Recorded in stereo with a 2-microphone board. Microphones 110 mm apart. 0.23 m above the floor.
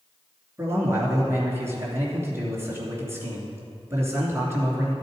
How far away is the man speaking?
About 3 m.